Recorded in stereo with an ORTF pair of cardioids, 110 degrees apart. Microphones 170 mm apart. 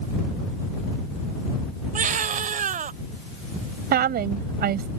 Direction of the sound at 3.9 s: 60° right.